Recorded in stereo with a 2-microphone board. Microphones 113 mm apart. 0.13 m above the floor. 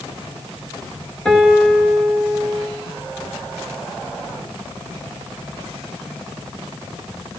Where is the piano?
5° left (ahead or behind), 2.5 m.